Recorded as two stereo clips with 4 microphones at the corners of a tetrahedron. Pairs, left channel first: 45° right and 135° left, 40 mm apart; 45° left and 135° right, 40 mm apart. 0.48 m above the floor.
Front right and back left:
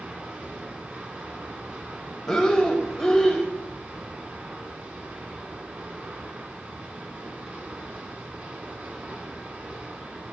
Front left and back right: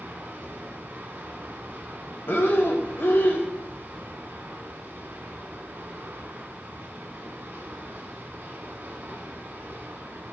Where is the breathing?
30° left, 1.5 m.